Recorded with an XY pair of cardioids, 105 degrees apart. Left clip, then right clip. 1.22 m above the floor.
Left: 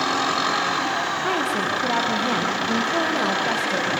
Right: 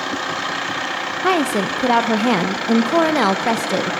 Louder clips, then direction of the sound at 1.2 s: Right 4 dB; 60° right.